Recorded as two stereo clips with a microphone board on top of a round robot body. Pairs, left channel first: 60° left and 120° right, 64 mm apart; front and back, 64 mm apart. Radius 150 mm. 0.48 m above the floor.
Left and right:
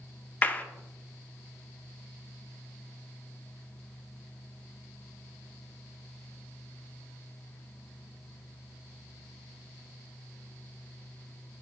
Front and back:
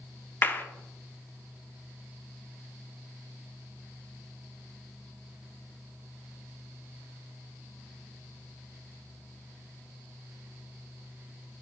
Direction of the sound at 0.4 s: 25° left.